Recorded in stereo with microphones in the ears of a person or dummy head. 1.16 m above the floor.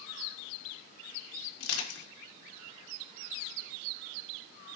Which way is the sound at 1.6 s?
80° left.